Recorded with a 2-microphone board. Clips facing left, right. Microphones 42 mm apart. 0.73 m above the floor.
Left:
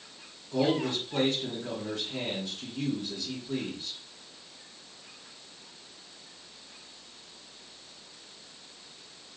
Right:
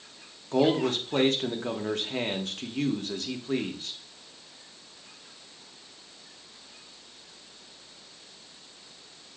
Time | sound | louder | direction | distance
0.5 | a man speaking | right 4 dB | 60° right (ahead or behind) | 0.9 m